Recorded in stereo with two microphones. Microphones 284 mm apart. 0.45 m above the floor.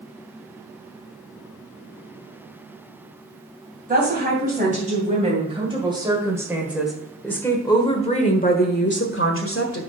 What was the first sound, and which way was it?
A woman speaking, 30° right (ahead or behind).